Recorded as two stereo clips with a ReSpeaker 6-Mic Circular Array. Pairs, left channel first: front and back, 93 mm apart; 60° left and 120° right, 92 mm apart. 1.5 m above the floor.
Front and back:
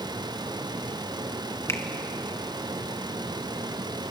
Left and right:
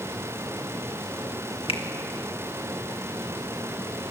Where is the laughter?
No laughter in this recording.